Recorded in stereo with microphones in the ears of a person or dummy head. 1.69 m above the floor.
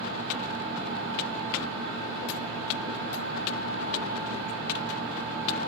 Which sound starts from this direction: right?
A fan, at 0.0 s.